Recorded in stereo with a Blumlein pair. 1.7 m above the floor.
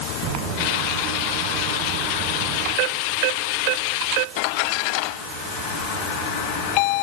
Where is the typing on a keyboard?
I don't hear typing on a keyboard.